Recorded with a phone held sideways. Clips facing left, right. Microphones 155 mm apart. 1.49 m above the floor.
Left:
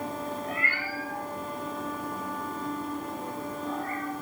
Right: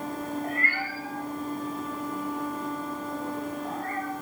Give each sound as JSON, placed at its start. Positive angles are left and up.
{"t": 0.4, "sound": "a cat meowing", "side_deg": -55, "distance_m": 7.0}